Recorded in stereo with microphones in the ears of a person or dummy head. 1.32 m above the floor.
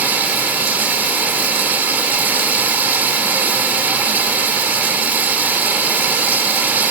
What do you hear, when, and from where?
0.0 s running water: 10° right (ahead or behind)